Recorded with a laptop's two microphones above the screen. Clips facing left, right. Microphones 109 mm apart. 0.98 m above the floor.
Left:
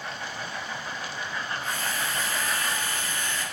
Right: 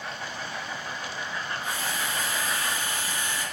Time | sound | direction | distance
1.6 | a drill | 15° right (ahead or behind) | 6.5 m